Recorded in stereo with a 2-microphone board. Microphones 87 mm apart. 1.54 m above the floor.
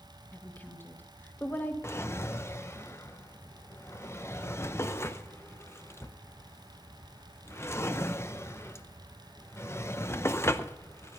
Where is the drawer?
30° left (ahead or behind), 0.7 m.